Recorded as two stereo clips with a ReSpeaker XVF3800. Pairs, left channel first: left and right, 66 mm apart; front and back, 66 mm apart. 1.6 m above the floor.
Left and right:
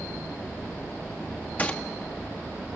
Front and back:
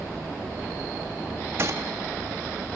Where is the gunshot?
145° left, 1.4 m.